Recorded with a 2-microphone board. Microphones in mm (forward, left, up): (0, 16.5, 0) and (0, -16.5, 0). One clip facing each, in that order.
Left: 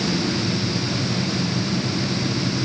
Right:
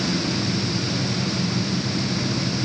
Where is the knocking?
No knocking in this recording.